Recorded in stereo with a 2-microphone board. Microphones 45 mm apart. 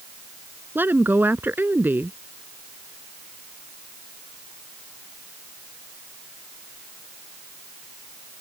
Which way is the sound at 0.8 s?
50° right (ahead or behind).